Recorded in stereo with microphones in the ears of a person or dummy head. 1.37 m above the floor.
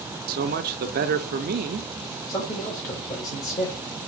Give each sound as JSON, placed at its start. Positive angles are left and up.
{"t": 0.3, "sound": "a man speaking", "side_deg": -50, "distance_m": 0.6}
{"t": 2.3, "sound": "a man speaking", "side_deg": 50, "distance_m": 3.5}